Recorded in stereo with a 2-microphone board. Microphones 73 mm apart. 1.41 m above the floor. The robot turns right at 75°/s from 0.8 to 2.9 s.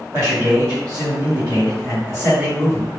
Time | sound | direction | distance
0.1 | a man speaking | 150° right | 1.2 m